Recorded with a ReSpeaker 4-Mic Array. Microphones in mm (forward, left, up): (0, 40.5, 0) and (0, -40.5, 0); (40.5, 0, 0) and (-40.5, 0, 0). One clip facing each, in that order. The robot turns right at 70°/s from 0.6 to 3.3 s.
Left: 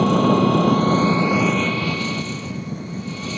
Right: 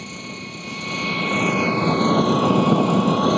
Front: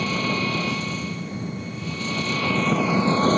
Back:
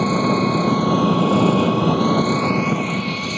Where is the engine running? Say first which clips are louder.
Left 19 dB, back 7 dB; 120° left; by 3.4 s 55° right.